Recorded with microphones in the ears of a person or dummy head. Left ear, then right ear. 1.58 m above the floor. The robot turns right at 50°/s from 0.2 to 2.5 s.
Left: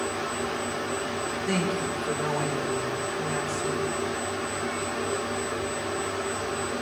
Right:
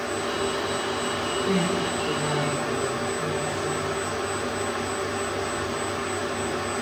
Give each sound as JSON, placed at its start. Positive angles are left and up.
{"t": 1.5, "sound": "a woman speaking", "azimuth_deg": 95, "distance_m": 5.0}